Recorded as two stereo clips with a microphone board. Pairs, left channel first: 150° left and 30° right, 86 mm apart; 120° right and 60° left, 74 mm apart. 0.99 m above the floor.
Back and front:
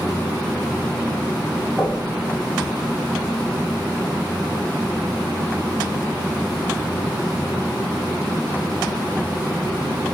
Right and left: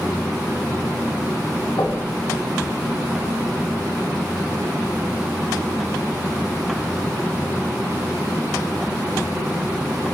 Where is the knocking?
100° right, 6 m.